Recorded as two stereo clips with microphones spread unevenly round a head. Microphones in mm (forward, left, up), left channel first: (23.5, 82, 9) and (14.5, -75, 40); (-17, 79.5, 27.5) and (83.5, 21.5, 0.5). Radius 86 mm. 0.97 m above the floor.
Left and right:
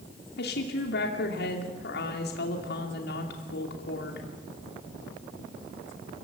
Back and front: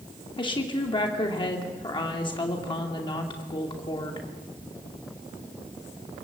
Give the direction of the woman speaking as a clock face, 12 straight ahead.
9 o'clock.